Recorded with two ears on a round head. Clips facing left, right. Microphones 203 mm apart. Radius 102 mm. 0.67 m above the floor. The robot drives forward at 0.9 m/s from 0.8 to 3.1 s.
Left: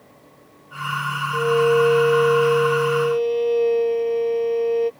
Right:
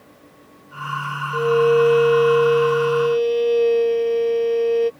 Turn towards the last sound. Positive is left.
turn(degrees=-15)  # may be behind; listen again after turning